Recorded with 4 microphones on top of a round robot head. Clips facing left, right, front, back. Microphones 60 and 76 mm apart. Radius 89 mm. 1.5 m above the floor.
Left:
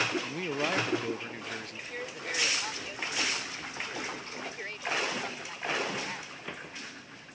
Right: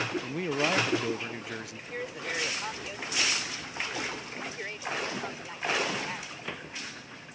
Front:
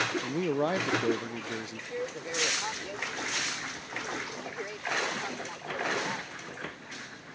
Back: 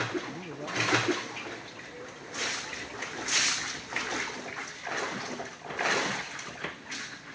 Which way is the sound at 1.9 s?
10° right.